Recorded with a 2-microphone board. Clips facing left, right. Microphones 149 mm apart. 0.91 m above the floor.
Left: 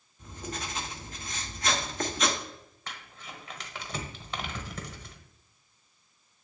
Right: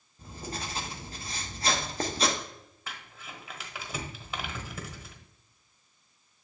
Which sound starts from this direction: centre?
Crumpling, at 2.9 s.